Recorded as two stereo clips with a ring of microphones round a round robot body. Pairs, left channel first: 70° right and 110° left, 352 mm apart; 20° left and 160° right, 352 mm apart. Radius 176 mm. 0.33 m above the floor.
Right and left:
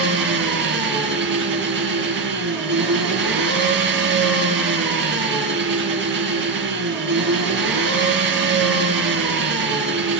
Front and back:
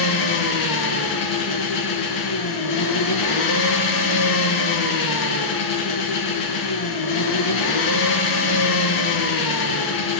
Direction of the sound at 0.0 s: 50° left.